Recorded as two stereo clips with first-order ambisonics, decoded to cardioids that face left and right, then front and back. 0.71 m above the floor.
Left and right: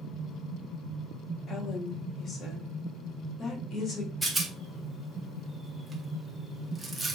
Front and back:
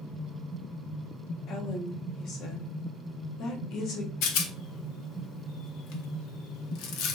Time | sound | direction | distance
1.5 | a woman speaking | 35° left | 0.8 m
4.2 | a rattle | 5° right | 0.6 m